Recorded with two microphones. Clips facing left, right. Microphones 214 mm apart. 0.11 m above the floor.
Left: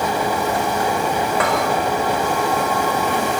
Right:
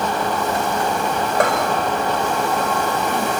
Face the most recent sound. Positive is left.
turn(degrees=-45)  # may be behind; listen again after turning